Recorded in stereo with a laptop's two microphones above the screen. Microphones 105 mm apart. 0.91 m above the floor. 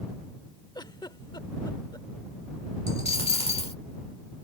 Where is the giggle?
45° left (ahead or behind).